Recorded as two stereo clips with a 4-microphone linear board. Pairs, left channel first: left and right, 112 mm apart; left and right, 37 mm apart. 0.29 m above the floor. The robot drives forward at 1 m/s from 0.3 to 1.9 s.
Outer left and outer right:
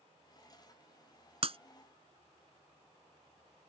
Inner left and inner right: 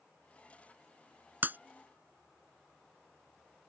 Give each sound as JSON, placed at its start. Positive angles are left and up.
{"t": 1.4, "sound": "breaking glass", "side_deg": -65}